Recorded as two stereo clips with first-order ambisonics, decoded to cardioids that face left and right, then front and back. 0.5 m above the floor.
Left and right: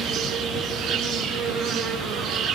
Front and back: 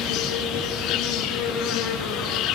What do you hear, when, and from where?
0.0 s an insect: 45° right, 7.5 m